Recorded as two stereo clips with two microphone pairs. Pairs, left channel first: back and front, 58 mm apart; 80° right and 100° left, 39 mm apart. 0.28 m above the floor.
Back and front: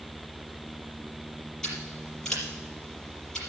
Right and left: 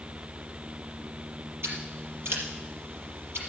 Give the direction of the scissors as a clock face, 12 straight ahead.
9 o'clock.